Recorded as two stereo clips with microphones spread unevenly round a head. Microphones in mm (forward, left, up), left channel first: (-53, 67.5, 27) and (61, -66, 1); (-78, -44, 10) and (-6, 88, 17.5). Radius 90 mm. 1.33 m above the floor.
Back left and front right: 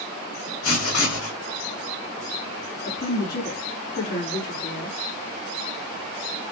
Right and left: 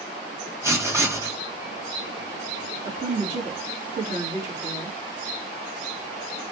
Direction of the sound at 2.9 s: 95° left.